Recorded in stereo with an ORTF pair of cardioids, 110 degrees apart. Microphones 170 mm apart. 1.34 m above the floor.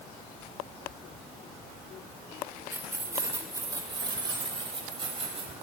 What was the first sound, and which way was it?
Keys jangling, 10° right.